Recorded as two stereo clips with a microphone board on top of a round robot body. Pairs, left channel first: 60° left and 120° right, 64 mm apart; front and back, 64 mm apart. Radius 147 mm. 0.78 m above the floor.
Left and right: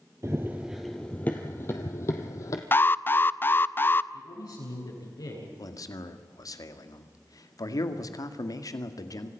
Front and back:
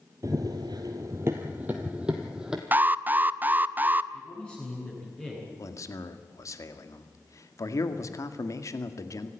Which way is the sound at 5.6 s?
35° left.